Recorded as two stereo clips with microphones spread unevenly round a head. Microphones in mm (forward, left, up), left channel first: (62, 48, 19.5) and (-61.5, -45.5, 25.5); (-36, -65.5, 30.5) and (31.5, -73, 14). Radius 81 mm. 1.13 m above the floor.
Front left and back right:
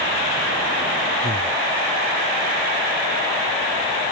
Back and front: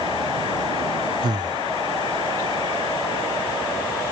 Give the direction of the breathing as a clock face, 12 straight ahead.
12 o'clock.